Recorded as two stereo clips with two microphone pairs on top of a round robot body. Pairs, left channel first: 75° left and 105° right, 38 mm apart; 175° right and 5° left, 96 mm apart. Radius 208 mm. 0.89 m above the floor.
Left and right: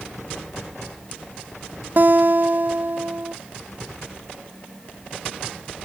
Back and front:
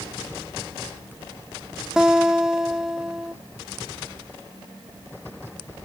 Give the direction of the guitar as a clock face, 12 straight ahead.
3 o'clock.